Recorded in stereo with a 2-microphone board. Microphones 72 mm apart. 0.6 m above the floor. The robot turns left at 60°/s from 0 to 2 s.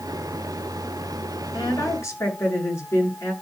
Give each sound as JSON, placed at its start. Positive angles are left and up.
{"t": 1.5, "sound": "a woman speaking", "side_deg": 65, "distance_m": 7.5}